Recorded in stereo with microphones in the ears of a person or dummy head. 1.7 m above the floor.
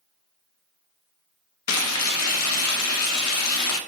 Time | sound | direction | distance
1.7 | frying | 75° left (ahead or behind) | 0.6 m